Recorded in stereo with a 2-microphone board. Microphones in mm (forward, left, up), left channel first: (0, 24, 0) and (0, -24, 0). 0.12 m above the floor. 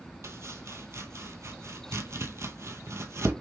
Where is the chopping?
70° right (ahead or behind), 0.7 m.